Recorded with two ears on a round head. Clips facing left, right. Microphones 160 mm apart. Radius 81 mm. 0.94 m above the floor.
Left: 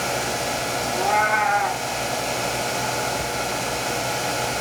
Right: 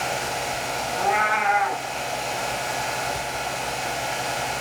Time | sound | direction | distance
0.9 | a cat meowing | centre (ahead or behind) | 1.2 m